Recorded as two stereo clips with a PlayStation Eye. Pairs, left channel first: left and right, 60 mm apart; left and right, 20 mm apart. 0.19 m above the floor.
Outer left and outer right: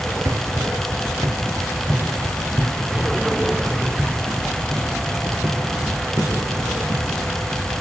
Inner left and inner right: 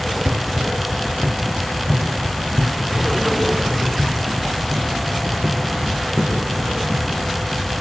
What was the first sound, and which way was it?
Running footsteps, 85° right.